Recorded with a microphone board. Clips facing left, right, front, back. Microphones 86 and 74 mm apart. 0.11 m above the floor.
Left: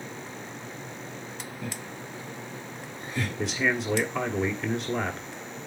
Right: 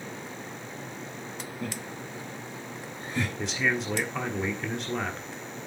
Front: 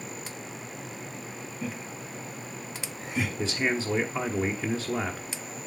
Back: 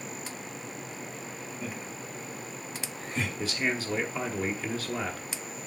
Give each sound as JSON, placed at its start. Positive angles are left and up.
{"t": 1.6, "sound": "laughter", "azimuth_deg": -90, "distance_m": 2.5}
{"t": 3.4, "sound": "a man speaking", "azimuth_deg": 5, "distance_m": 1.1}